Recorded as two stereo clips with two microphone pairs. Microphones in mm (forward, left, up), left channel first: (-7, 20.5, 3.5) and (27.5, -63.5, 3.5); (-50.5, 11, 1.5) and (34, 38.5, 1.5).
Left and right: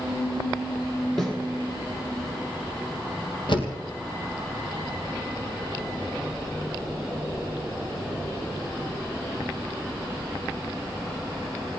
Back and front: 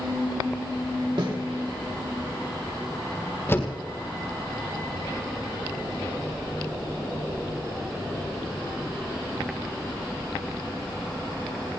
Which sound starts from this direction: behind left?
A door slam, at 3.5 s.